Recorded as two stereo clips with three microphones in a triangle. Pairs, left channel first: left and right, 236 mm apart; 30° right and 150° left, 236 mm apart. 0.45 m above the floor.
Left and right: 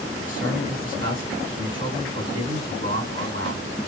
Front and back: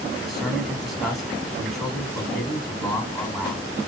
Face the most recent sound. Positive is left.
turn(degrees=-120)